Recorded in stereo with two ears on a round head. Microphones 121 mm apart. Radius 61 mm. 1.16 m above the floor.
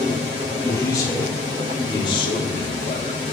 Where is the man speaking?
25° left (ahead or behind), 4 m; by 3.2 s 45° left (ahead or behind), 3 m.